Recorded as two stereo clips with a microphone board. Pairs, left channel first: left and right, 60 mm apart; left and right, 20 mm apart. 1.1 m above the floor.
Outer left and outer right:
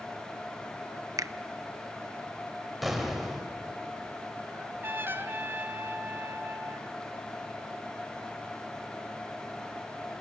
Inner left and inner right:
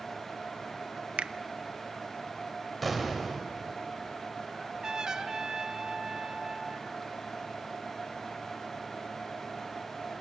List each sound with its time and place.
1.2 s a finger snap: 70° right (ahead or behind), 0.6 m
2.8 s an explosion: centre (ahead or behind), 3 m
4.5 s a trumpet: 35° right (ahead or behind), 1.1 m